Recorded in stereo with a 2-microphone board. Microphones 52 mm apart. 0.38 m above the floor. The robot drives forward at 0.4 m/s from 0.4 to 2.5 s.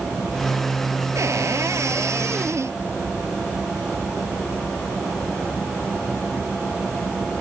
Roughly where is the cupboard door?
Right.